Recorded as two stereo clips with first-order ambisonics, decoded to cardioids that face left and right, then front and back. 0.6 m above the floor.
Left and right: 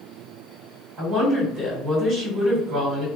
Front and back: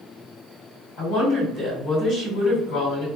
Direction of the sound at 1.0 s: 35° right.